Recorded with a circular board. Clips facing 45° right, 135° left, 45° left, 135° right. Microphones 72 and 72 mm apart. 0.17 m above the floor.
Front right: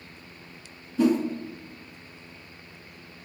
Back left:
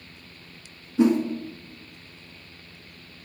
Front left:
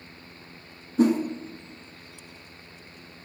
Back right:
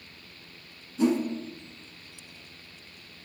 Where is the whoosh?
70° left, 0.6 m.